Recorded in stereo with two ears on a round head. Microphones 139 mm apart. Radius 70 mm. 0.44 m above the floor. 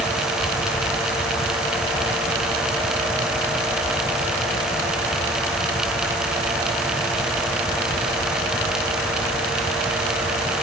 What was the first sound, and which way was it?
Only background noise.